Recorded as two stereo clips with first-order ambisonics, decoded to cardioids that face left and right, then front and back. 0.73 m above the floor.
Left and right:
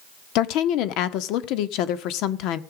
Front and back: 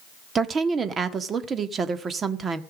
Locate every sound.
0.3 s a woman speaking: 115° left, 1.4 m